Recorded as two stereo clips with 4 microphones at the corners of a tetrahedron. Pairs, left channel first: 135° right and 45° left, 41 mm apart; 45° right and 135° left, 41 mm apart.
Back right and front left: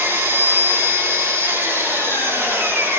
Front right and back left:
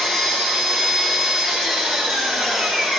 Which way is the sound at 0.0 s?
35° left.